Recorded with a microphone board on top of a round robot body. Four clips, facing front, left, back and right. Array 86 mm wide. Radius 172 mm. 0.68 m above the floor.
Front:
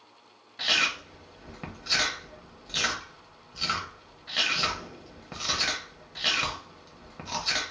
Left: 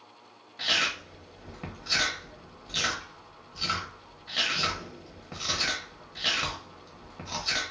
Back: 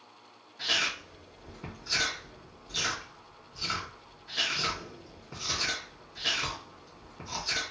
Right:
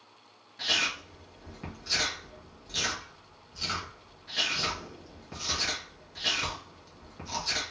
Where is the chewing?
15° left, 1.4 m.